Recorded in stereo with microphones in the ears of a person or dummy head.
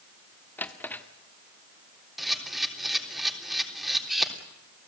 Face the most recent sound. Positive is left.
turn(degrees=-5)  # may be behind; listen again after turning